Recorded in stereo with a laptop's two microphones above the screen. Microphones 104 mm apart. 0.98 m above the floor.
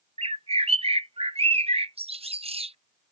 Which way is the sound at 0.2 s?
65° right (ahead or behind).